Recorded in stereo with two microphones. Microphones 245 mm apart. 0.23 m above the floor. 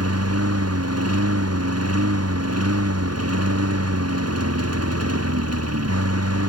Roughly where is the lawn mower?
Right.